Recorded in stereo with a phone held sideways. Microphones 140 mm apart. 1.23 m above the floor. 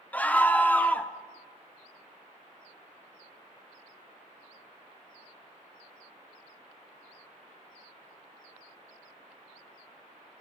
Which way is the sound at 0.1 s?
10° left (ahead or behind).